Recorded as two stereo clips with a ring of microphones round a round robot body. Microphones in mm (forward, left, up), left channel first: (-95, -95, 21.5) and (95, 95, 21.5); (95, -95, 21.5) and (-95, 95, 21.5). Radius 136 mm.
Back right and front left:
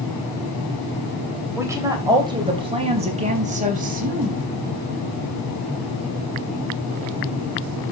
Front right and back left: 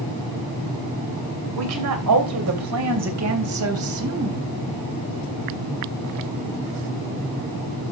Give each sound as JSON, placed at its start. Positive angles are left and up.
{"t": 1.6, "sound": "a woman speaking", "azimuth_deg": 125, "distance_m": 3.0}